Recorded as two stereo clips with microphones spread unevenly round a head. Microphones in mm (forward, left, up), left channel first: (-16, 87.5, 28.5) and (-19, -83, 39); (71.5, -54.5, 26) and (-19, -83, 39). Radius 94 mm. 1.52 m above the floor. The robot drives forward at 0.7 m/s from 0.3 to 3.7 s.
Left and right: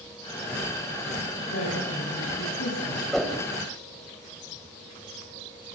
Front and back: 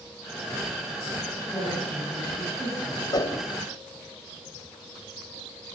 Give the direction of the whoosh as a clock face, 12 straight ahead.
12 o'clock.